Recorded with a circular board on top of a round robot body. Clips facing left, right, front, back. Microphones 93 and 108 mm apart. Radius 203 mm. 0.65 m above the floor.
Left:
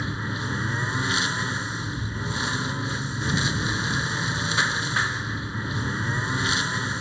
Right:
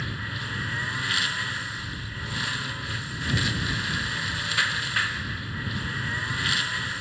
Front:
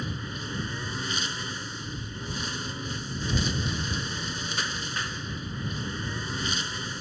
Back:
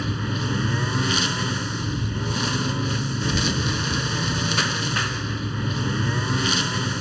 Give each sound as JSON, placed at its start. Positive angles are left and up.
{"t": 0.0, "sound": "a lawn mower", "azimuth_deg": 160}